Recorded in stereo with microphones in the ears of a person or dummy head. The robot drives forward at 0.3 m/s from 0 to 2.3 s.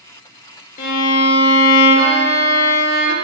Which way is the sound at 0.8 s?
45° left (ahead or behind).